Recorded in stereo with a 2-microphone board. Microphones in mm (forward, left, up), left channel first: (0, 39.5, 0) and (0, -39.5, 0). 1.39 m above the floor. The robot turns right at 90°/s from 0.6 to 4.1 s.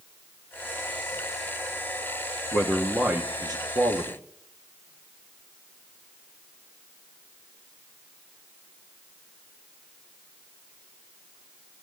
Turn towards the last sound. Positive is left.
turn(degrees=-70)